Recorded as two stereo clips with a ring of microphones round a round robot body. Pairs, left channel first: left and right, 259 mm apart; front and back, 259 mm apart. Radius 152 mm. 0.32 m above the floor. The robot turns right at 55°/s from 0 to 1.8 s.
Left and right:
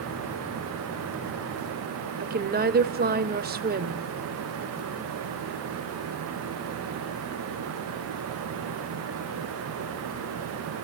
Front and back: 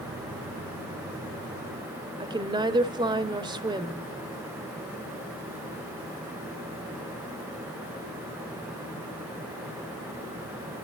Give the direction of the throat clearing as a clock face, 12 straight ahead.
I don't hear throat clearing.